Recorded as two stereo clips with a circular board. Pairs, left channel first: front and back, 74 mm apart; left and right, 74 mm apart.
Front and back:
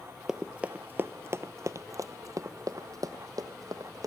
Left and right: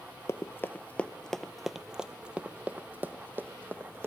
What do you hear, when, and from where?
0.3 s running footsteps: 105° left, 0.8 m; by 4.1 s 150° right, 1.9 m